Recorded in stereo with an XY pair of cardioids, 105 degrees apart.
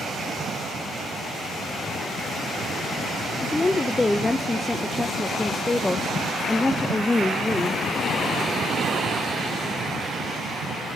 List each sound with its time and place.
3.4 s a woman speaking: 20° left, 0.6 m